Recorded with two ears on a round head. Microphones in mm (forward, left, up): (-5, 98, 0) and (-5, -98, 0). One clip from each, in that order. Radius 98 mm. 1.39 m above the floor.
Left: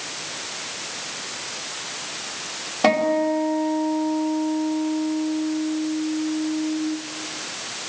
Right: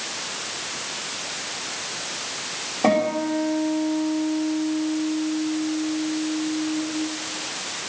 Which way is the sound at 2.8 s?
75° left (ahead or behind).